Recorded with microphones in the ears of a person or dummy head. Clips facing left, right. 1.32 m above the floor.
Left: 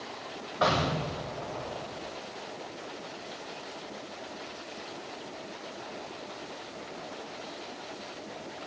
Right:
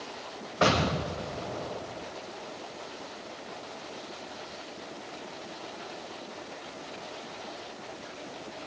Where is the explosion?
35° right (ahead or behind), 1.1 m.